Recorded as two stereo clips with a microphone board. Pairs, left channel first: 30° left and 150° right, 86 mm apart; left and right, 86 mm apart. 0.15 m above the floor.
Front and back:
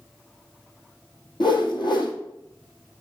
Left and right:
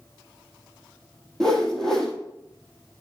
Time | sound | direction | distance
1.4 | a whoosh | 5° left | 1.0 m